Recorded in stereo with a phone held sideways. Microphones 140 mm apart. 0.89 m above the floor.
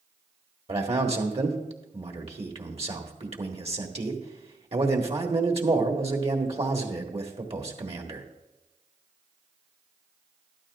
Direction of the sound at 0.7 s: 45° right (ahead or behind).